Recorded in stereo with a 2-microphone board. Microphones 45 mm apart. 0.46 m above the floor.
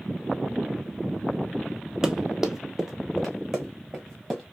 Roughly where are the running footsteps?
Centre.